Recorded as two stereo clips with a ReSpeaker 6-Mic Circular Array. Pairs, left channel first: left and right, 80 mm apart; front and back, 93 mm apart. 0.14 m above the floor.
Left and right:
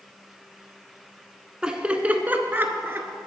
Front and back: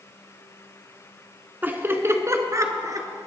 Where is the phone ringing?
I don't hear a phone ringing.